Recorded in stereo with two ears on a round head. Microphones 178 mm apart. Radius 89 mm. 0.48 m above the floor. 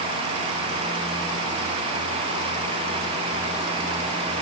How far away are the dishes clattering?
I don't hear dishes clattering.